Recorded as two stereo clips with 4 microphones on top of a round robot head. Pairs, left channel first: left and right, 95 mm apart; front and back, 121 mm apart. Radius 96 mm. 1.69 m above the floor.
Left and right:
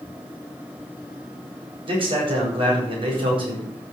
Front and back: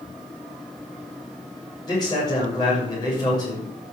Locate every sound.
1.9 s a man speaking: 60° right, 7.5 m